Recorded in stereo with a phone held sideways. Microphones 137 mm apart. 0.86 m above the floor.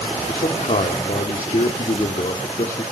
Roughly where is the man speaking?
Left.